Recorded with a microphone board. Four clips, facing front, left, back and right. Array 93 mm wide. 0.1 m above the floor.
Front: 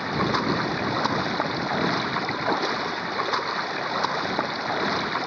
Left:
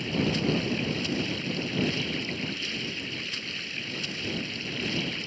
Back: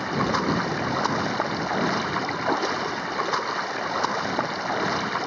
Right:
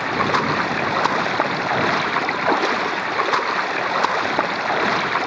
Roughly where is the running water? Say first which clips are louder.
Right 9 dB, even; right.